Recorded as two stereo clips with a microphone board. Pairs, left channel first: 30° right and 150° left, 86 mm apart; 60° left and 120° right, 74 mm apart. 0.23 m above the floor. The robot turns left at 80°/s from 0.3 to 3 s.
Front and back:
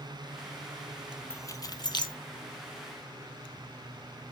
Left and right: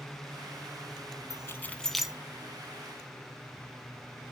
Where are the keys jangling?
25° left, 1.1 m; by 2.2 s 45° right, 1.1 m.